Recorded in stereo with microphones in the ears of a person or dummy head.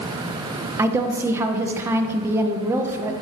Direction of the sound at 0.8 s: 10° right (ahead or behind).